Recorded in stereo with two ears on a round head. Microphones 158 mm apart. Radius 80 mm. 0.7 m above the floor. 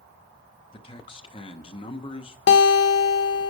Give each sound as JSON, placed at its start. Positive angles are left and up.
{"t": 0.7, "sound": "a man speaking", "side_deg": 30, "distance_m": 0.8}
{"t": 2.5, "sound": "a guitar", "side_deg": 70, "distance_m": 0.7}